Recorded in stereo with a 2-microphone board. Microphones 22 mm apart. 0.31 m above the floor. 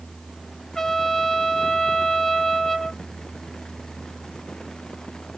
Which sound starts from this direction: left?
A trumpet, at 0.8 s.